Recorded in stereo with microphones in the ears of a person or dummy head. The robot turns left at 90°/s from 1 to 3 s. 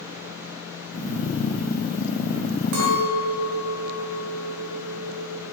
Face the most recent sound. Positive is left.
turn(degrees=-65)  # may be behind; listen again after turning